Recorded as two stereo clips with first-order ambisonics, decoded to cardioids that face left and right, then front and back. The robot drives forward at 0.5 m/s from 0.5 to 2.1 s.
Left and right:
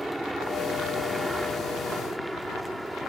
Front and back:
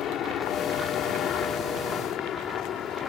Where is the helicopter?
5° right.